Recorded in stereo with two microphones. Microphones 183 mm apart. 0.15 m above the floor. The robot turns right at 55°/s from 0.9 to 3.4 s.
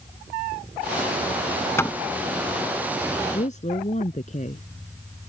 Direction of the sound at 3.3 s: 40° left (ahead or behind).